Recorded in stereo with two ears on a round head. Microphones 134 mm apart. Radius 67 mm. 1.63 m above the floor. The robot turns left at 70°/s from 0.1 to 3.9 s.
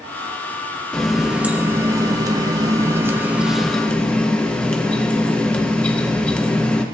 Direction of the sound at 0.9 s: 5° left (ahead or behind).